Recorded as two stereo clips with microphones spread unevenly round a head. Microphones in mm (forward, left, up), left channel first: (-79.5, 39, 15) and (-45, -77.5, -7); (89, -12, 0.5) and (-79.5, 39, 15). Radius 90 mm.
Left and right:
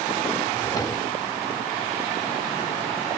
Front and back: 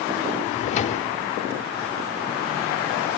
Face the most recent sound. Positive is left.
turn(degrees=35)